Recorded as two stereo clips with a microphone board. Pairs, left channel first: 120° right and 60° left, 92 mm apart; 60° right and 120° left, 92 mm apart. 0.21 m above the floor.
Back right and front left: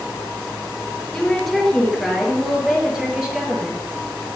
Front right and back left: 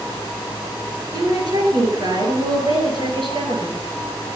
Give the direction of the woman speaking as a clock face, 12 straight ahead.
7 o'clock.